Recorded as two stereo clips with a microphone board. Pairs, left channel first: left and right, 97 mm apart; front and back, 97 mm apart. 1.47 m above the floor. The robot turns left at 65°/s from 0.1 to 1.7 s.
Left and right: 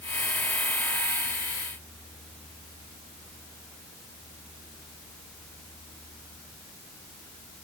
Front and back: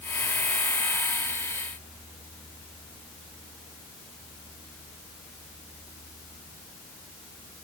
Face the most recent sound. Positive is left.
No sound to turn to.